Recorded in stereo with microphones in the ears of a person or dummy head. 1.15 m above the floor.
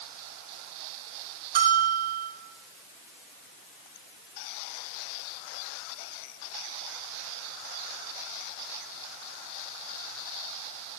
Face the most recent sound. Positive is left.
turn(degrees=-50)  # may be behind; listen again after turning